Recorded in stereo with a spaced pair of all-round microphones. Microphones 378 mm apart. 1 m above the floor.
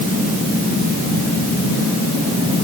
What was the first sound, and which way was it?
Only background noise.